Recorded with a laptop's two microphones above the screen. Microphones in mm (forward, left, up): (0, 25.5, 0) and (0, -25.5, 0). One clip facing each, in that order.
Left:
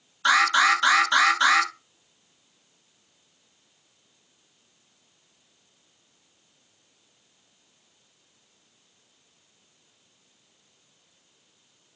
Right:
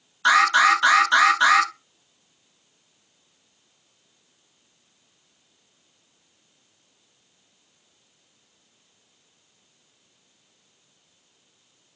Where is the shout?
No shout in this recording.